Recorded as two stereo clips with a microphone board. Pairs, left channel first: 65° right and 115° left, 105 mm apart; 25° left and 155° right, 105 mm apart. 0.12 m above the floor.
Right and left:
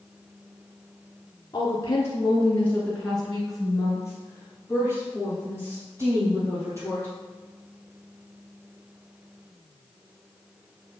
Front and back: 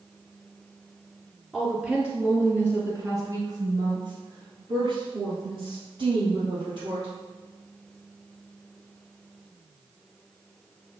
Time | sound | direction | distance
1.5 | a woman speaking | 65° right | 2.0 m